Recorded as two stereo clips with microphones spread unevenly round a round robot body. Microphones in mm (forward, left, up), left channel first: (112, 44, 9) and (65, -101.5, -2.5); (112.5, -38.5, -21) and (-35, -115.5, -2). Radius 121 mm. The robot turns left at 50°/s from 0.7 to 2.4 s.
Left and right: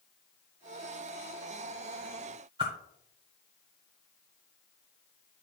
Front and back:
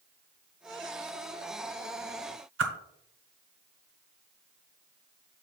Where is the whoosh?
Straight behind, 0.8 m.